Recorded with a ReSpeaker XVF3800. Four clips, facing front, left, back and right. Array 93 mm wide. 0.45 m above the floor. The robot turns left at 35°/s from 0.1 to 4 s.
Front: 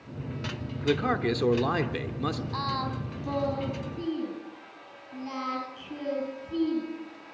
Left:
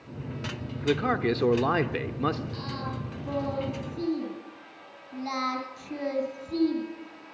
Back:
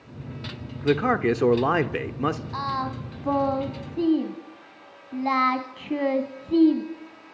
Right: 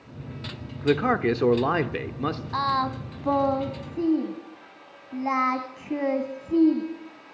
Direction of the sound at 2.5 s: 100° right.